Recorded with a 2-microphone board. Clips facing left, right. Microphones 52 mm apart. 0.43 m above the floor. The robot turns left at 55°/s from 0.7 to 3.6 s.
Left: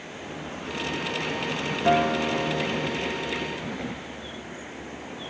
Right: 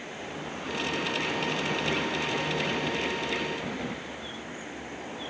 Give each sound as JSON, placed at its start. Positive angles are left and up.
{"t": 1.9, "sound": "a guitar", "azimuth_deg": 90}